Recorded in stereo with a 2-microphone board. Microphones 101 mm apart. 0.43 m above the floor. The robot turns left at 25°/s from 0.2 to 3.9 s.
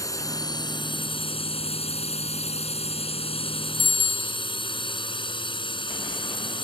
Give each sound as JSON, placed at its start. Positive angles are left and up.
{"t": 0.0, "sound": "a drone", "azimuth_deg": 145}
{"t": 3.8, "sound": "a bicycle bell", "side_deg": 70}